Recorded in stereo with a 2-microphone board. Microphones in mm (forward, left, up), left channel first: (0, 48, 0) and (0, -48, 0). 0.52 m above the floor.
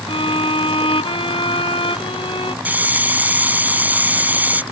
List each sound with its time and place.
0.1 s a violin: 80° left
2.6 s a hiss: 15° right (ahead or behind)